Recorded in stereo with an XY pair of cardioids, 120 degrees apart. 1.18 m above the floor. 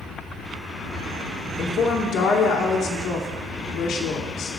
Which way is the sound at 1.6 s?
50° left.